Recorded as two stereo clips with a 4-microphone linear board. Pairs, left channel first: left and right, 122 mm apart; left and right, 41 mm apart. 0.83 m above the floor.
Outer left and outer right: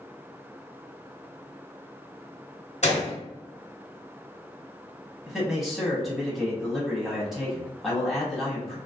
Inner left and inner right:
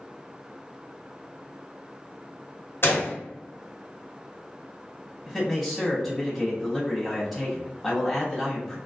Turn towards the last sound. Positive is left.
turn(degrees=5)  # may be behind; listen again after turning